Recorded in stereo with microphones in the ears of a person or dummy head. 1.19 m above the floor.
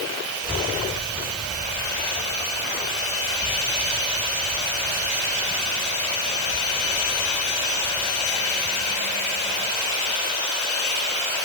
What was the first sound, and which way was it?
A child speaking, 20° right (ahead or behind).